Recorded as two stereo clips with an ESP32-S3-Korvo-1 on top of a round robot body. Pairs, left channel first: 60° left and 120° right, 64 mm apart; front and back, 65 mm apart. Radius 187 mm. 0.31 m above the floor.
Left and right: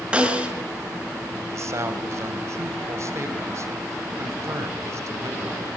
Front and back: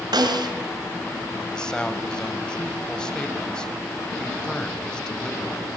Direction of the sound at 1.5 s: 80° right.